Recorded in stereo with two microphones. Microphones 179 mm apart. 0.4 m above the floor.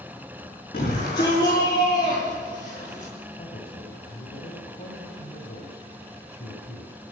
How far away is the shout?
About 6 m.